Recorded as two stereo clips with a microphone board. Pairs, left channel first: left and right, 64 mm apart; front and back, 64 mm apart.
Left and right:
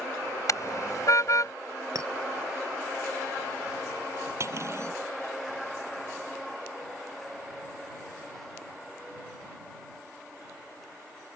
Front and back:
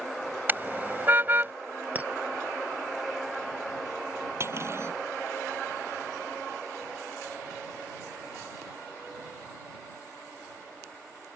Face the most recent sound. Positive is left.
turn(degrees=-135)